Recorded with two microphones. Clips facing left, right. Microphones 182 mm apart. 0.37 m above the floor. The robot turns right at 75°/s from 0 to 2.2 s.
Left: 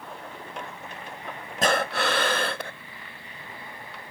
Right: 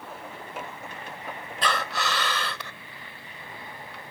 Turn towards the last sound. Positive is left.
turn(degrees=105)